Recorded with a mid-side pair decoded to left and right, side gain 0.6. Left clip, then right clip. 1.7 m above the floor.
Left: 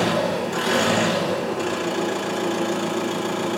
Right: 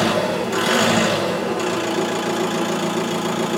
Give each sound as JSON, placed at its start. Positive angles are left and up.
{"t": 0.0, "sound": "an engine running", "azimuth_deg": -45, "distance_m": 5.0}